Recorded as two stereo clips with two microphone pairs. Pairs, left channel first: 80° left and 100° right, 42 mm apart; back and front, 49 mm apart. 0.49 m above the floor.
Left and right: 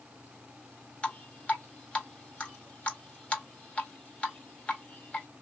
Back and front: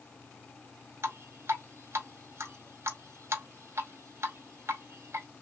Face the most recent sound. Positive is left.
turn(degrees=20)